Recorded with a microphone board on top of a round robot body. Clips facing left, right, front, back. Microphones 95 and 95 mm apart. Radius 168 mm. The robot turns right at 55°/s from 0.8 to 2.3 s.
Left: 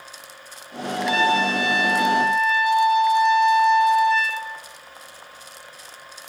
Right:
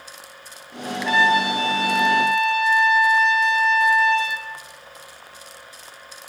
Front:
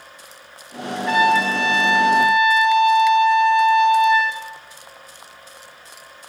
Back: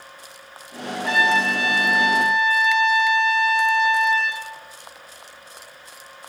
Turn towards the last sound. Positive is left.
turn(degrees=-120)